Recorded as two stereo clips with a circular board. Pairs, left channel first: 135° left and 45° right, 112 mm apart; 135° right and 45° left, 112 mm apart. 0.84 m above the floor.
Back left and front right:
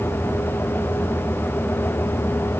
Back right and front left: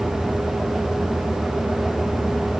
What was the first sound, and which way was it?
Only background noise.